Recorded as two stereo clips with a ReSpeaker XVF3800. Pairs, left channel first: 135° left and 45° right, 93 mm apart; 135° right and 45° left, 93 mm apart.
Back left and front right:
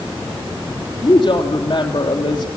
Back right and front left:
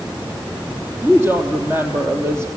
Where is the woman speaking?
110° left, 3 m.